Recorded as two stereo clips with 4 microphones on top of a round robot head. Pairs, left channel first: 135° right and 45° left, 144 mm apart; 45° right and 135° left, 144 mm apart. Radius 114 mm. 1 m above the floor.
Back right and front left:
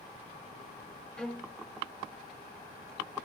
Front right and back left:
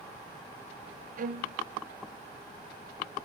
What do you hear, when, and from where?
1.2 s a violin: 140° left, 0.9 m